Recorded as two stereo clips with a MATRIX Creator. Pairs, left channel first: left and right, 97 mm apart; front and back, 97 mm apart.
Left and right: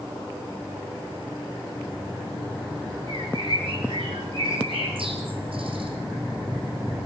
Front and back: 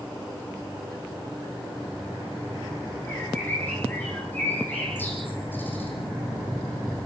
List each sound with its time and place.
3.1 s a bird: 70° right, 5 m